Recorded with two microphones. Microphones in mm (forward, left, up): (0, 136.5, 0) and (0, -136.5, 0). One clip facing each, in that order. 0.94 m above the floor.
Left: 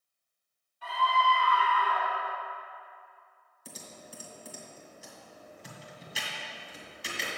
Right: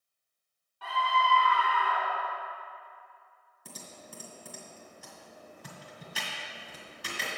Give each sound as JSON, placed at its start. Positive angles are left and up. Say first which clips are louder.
{"t": 0.8, "sound": "a scream", "louder": "left 1 dB", "side_deg": -75, "distance_m": 3.5}
{"t": 3.6, "sound": "typing on a keyboard", "louder": "left 1 dB", "side_deg": -60, "distance_m": 2.0}